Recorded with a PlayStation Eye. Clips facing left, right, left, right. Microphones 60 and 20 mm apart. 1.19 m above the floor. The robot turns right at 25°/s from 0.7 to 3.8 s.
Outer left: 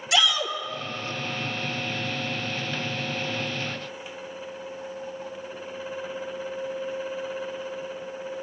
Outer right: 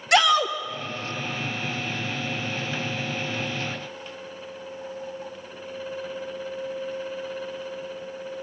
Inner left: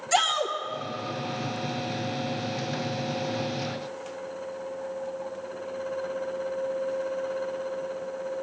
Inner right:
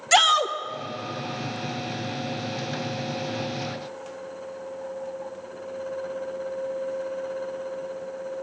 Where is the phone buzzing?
No phone buzzing in this recording.